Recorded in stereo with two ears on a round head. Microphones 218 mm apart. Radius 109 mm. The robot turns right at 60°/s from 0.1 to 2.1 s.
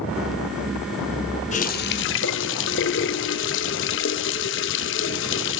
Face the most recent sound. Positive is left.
turn(degrees=70)